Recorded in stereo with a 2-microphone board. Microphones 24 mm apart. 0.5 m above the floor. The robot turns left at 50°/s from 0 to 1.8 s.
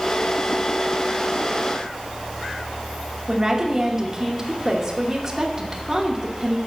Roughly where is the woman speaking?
Right.